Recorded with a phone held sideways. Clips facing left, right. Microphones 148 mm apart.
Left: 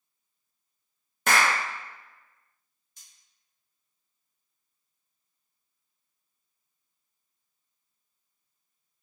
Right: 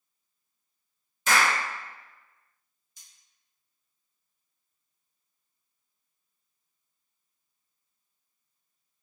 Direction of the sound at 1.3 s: 60° left (ahead or behind).